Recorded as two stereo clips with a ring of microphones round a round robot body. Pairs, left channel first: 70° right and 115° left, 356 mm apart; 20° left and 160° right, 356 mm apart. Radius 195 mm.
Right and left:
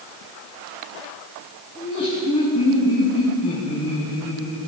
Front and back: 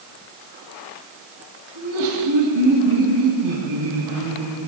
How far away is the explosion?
No explosion in this recording.